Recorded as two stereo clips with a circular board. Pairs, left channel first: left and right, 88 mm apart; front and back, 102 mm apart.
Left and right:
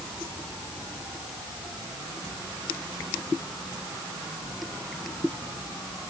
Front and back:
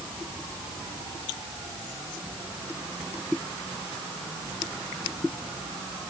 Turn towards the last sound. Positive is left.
No sound to turn to.